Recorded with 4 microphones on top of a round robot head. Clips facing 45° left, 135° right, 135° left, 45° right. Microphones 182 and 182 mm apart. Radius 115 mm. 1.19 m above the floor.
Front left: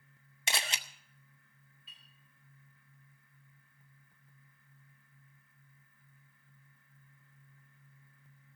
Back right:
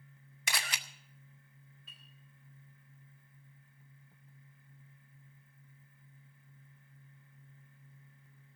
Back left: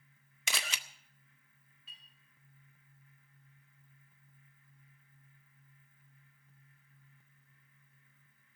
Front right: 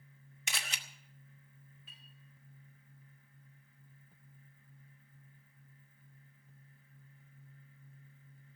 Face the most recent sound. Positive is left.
turn(degrees=-85)